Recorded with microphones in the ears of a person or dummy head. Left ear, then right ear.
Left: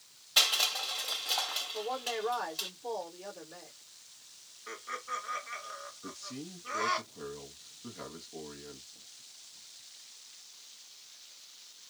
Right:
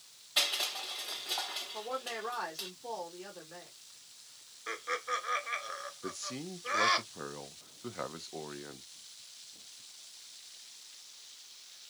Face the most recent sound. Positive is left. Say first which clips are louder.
# right 3 dB
turn(degrees=-45)  # may be behind; listen again after turning